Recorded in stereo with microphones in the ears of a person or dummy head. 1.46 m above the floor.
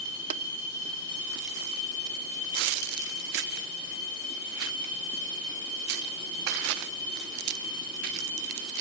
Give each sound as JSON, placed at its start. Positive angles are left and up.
{"t": 0.3, "sound": "tapping", "side_deg": -40, "distance_m": 0.7}